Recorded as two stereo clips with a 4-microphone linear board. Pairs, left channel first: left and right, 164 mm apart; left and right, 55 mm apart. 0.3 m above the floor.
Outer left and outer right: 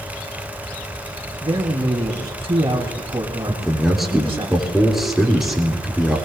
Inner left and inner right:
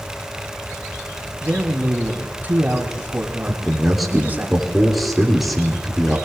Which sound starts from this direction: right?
A man speaking, at 1.4 s.